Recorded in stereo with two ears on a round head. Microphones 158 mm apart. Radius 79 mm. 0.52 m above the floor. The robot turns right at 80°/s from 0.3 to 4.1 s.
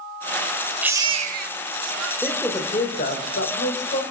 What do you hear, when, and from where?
0.8 s a baby crying: 170° right, 0.7 m; by 2.1 s 70° right, 0.7 m
2.2 s a man speaking: 5° right, 3 m; by 4.0 s 135° left, 3 m